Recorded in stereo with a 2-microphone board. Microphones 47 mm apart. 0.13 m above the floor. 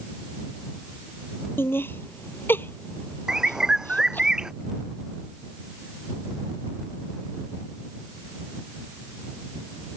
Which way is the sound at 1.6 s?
55° left (ahead or behind).